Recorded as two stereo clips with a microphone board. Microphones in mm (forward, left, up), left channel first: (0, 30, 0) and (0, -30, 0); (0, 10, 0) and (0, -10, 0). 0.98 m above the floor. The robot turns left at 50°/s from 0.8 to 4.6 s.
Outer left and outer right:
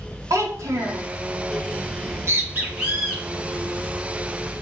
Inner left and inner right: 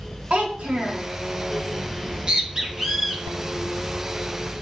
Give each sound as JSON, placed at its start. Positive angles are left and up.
{"t": 0.3, "sound": "a child speaking", "side_deg": -65, "distance_m": 0.8}
{"t": 1.9, "sound": "a bird", "side_deg": -60, "distance_m": 0.6}